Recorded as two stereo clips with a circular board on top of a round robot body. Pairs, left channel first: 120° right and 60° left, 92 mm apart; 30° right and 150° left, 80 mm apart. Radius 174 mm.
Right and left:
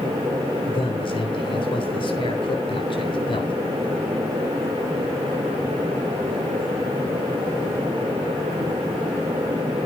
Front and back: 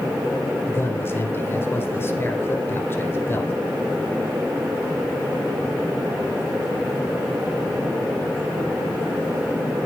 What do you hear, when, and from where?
0.7 s a man speaking: 90° right, 3.5 m